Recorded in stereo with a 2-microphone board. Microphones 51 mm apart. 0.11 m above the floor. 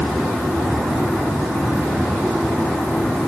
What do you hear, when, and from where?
Only background noise.